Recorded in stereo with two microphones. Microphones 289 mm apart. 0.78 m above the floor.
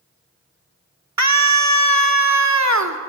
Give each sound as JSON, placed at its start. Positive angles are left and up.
{"t": 1.2, "sound": "a scream", "side_deg": -65, "distance_m": 1.9}